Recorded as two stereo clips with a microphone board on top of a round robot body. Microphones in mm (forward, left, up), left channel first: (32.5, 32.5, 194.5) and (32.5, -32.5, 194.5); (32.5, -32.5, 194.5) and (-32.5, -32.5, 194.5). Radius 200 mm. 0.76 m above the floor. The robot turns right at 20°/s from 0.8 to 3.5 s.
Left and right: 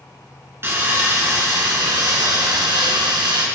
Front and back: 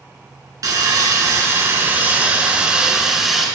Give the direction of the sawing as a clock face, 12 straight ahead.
5 o'clock.